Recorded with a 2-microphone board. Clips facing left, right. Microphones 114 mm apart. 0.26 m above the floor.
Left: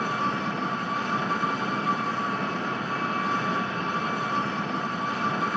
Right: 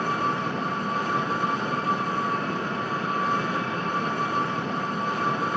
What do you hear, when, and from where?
0.0 s an engine running: 55° right (ahead or behind), 1.8 m